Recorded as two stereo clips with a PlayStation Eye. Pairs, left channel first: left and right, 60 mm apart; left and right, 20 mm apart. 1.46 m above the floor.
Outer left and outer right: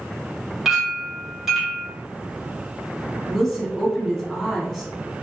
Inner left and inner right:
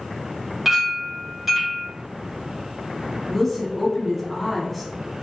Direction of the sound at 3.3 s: 10° left (ahead or behind).